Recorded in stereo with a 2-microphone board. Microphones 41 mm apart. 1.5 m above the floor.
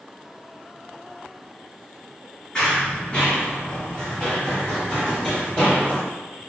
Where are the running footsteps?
20° left (ahead or behind), 1.5 m; by 6.0 s 15° left (ahead or behind), 3.5 m.